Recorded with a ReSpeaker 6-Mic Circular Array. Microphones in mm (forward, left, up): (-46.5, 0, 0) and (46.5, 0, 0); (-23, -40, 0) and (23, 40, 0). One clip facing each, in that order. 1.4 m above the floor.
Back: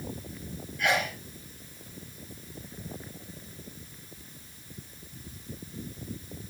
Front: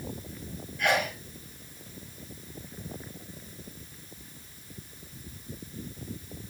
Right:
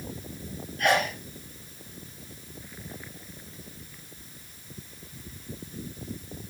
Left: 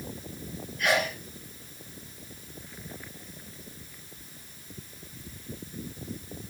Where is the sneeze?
90° right, 2.5 m.